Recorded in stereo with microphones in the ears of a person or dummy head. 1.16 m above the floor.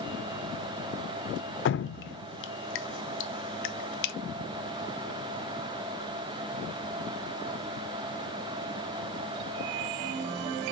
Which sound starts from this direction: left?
Dripping, at 1.6 s.